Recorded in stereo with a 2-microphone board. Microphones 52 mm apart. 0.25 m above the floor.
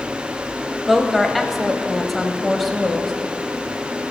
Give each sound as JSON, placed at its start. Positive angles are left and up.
{"t": 0.9, "sound": "a woman speaking", "side_deg": 0, "distance_m": 0.9}